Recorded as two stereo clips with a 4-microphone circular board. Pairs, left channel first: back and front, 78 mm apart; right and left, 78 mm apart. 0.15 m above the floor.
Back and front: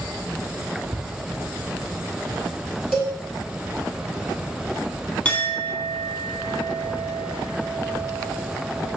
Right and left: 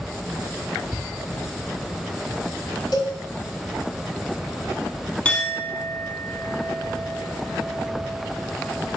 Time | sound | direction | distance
2.9 | a cowbell | 90° right | 1.2 m
5.2 | a clink | 135° right | 0.6 m